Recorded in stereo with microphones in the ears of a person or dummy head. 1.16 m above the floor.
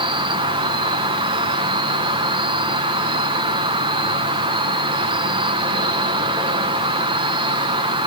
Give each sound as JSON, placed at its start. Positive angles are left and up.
{"t": 0.0, "sound": "an insect", "side_deg": -30, "distance_m": 0.7}